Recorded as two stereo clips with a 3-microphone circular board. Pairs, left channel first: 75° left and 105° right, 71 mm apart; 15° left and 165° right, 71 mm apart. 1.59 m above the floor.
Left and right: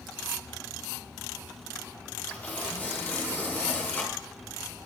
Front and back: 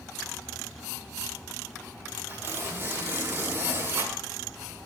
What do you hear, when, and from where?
2.3 s tearing paper: 140° left, 5 m